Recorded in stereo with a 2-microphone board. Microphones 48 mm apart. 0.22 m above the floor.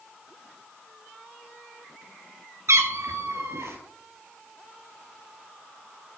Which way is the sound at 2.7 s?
75° right (ahead or behind).